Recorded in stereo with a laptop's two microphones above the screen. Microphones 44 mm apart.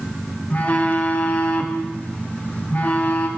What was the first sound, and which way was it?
A phone buzzing, 35° left (ahead or behind).